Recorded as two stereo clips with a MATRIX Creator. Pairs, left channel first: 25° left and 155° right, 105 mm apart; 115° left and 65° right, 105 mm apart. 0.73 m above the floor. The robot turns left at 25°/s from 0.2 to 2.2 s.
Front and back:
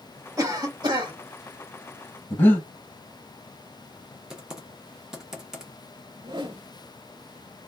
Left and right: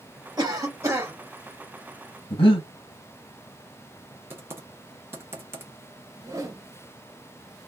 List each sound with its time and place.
0.4 s a cough: 110° right, 1.4 m; by 1.1 s 130° right, 1.4 m
2.3 s breathing: 90° left, 1.0 m
4.3 s typing on a keyboard: 85° right, 0.9 m
6.2 s a whoosh: 125° right, 0.8 m